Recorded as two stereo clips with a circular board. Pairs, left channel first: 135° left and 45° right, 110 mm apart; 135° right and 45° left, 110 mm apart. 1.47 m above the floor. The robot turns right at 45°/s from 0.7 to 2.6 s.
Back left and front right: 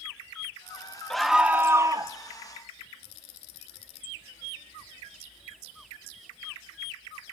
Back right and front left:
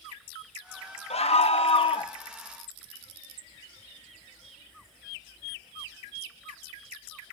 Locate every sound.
1.1 s a scream: 140° right, 0.8 m; by 2.1 s 95° right, 0.8 m